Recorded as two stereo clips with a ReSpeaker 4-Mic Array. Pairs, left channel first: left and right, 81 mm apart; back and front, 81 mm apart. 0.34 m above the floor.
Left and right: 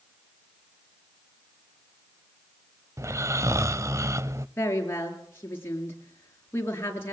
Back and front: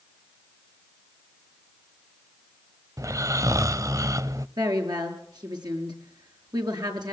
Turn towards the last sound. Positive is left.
turn(degrees=30)